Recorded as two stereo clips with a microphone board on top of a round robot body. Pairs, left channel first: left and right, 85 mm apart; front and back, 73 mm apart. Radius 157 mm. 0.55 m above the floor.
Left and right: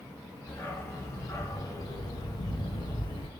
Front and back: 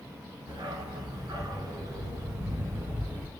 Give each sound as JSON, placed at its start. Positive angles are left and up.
{"t": 0.5, "sound": "a dog barking", "azimuth_deg": 155, "distance_m": 3.0}